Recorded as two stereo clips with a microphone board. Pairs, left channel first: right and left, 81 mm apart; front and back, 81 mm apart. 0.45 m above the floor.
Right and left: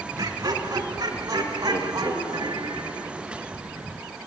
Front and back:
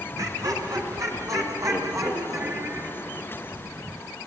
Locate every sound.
0.2 s laughter: 135° left, 4 m; by 3.1 s 130° left, 5 m